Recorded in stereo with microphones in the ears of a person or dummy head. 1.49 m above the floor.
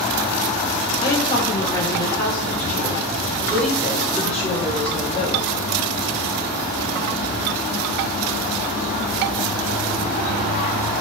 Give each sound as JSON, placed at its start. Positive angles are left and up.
{"t": 1.0, "sound": "a woman speaking", "side_deg": 30, "distance_m": 3.5}